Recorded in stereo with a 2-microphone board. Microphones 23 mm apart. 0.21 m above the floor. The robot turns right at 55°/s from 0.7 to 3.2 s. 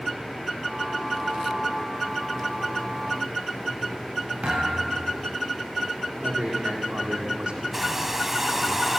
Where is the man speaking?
60° right (ahead or behind), 9.5 m.